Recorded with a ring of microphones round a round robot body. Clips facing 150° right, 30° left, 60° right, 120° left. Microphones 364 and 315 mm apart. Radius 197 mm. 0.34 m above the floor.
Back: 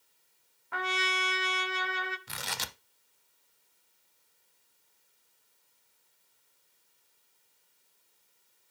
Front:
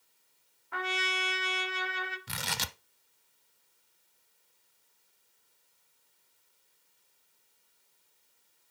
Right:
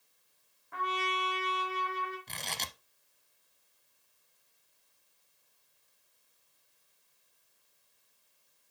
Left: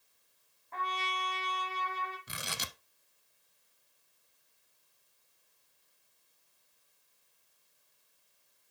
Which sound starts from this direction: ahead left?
Tearing paper, at 2.3 s.